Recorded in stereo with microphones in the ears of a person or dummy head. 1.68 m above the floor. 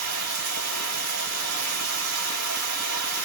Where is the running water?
80° right, 1.4 m.